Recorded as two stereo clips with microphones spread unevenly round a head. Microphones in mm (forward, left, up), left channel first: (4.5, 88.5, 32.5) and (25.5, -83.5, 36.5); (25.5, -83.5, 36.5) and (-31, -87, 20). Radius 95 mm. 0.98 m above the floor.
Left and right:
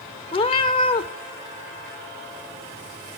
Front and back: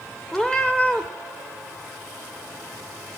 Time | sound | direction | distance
0.3 | a cat meowing | 55° left | 0.7 m